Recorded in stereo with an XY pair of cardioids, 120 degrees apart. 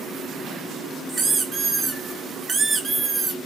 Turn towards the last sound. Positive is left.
turn(degrees=-20)